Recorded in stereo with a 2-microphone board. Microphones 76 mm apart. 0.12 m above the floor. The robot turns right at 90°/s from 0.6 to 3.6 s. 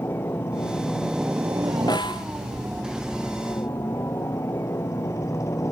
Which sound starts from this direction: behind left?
A helicopter, at 0.0 s.